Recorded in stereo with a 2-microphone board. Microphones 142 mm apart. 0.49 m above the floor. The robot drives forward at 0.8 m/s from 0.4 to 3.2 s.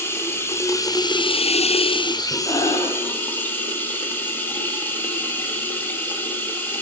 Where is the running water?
15° left (ahead or behind), 1.1 m.